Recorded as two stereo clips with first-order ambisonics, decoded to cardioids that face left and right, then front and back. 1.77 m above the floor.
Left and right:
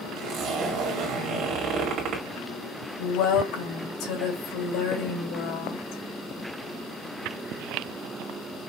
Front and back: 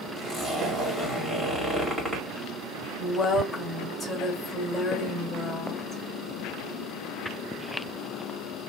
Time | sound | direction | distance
0.2 | a zipper | 75° right | 2 m
3.0 | a woman speaking | 75° left | 2.5 m